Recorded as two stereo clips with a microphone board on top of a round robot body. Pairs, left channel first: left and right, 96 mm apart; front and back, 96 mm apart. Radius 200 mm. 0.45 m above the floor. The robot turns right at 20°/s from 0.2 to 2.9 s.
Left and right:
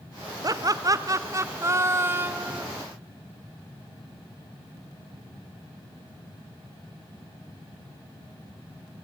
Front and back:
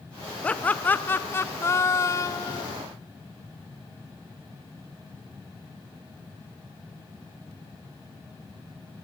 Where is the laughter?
70° right, 0.9 m; by 2.6 s 25° right, 0.9 m.